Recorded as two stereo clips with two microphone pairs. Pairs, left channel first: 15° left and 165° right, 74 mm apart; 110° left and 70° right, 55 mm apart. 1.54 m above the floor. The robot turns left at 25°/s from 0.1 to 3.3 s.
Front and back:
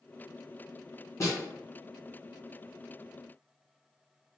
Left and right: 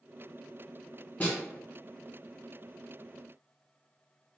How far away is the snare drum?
About 1.0 m.